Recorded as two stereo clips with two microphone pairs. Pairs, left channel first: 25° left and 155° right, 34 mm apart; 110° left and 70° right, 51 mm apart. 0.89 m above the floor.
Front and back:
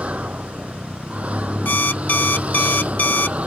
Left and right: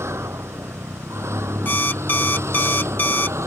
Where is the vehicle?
105° right.